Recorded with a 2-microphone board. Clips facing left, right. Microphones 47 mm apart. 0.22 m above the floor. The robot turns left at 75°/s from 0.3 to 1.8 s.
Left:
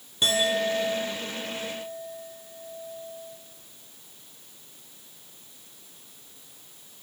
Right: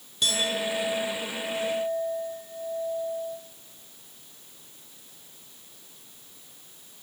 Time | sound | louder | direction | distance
0.2 | a clink | left 3 dB | 30° left | 5 m